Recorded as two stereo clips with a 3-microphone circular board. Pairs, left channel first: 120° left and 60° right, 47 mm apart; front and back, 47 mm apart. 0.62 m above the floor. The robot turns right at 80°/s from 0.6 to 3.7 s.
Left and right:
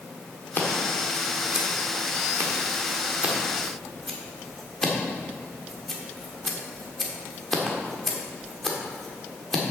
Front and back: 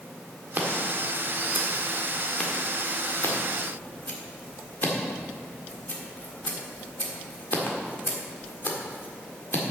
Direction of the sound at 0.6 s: 145° left.